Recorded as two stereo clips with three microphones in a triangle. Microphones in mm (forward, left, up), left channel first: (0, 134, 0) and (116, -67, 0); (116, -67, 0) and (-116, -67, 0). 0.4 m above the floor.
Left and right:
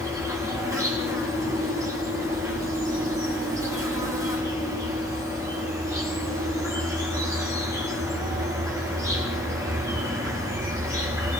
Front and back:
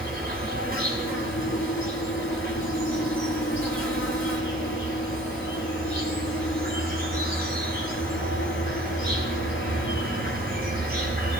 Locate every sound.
0.0 s an insect: 135° right, 5 m